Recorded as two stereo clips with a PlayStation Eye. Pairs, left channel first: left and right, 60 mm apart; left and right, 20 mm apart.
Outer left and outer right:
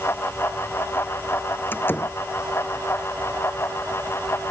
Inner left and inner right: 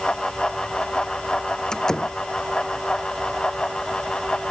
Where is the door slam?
35° left (ahead or behind).